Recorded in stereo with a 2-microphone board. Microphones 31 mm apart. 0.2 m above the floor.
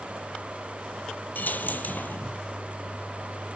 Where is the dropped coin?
80° left, 0.9 m.